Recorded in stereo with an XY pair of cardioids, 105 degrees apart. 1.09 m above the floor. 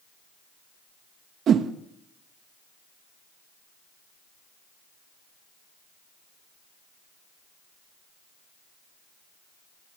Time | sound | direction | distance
1.5 | a whoosh | 60° right | 1.3 m